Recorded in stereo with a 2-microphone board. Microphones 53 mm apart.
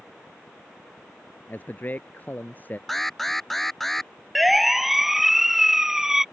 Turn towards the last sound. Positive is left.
turn(degrees=-10)  # may be behind; listen again after turning